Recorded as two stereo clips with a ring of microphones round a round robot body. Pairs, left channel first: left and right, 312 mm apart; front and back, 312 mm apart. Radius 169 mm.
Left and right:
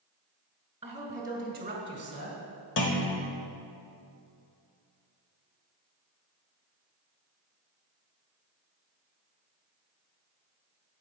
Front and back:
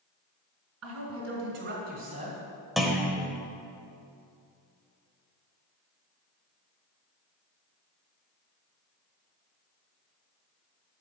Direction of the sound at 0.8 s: 170° right.